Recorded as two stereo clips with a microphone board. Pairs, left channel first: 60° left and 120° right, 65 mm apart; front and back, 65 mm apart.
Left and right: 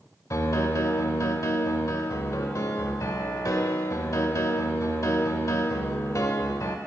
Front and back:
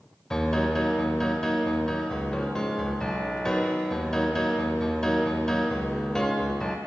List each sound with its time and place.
0.3 s a piano: 80° left, 0.8 m